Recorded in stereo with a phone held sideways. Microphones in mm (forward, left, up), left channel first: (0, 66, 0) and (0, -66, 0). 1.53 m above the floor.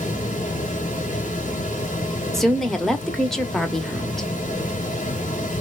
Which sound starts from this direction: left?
A fan, at 0.0 s.